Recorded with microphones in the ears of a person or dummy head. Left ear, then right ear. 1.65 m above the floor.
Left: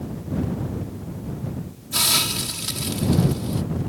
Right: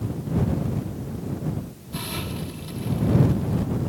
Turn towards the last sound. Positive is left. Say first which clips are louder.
# left 12 dB
turn(degrees=65)  # may be behind; listen again after turning